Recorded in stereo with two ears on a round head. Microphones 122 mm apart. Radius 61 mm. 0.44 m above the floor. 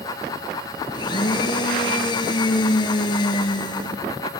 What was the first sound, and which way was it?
A blender, 30° left (ahead or behind).